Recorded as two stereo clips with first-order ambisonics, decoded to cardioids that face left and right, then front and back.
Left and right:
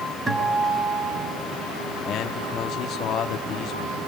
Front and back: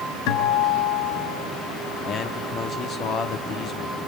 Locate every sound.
0.3 s a guitar: 15° right, 4.5 m
2.0 s a man speaking: 50° left, 1.2 m